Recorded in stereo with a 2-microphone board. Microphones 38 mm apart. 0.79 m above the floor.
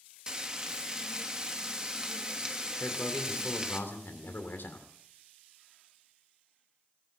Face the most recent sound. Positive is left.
turn(degrees=75)  # may be behind; listen again after turning